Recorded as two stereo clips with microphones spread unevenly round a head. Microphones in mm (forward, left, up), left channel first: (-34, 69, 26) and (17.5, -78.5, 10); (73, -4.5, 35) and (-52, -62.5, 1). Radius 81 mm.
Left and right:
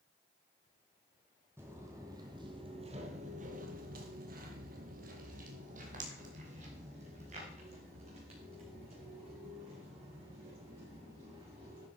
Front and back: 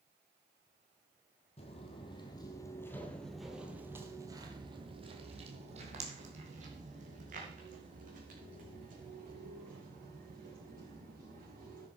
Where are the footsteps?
10° left, 2.0 m; by 11.9 s 130° right, 6.5 m.